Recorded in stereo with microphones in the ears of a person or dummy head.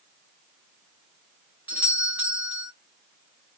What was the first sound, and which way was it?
A doorbell, 5° right (ahead or behind).